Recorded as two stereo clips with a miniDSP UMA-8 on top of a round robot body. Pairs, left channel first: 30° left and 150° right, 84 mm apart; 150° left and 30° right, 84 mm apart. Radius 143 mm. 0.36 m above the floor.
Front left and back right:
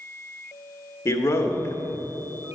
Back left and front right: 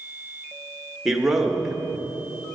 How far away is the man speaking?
About 1.3 m.